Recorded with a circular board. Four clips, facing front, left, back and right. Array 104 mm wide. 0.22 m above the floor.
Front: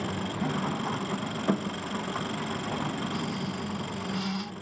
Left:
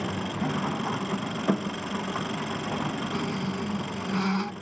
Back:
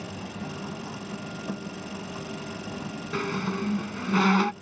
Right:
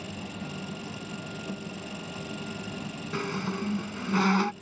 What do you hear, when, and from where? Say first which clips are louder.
0.0 s an engine running: left 9 dB, front 5 dB; 60° left
3.1 s a squeak: left 2 dB, back 3 dB; 160° right